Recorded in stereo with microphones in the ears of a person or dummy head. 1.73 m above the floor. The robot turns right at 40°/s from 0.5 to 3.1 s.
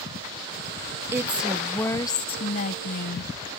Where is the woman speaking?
20° right; by 3.3 s 60° left.